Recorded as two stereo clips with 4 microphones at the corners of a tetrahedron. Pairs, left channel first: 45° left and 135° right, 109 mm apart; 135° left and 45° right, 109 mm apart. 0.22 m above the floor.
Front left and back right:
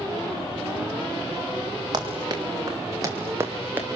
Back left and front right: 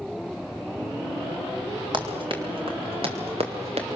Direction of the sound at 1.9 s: 90° right.